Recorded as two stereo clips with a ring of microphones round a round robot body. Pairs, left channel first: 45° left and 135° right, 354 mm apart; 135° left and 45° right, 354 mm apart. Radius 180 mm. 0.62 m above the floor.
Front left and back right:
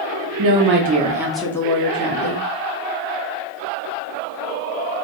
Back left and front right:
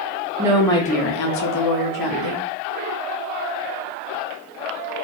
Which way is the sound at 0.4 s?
120° right.